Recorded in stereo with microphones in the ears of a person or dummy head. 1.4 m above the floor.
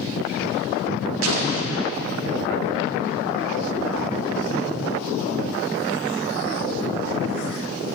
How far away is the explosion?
About 0.8 m.